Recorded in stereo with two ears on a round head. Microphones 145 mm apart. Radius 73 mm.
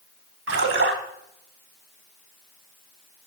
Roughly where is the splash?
Right.